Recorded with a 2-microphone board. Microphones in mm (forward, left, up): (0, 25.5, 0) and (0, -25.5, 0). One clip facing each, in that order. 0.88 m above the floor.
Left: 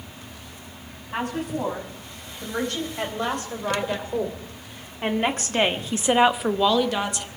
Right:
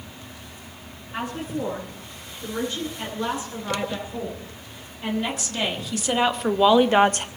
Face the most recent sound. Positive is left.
turn(degrees=-50)  # may be behind; listen again after turning